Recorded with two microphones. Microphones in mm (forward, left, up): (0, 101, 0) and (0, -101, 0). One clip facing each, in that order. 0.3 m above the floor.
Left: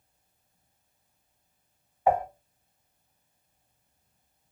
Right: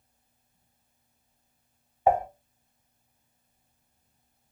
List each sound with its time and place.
2.1 s dishes clattering: 25° right (ahead or behind), 1.3 m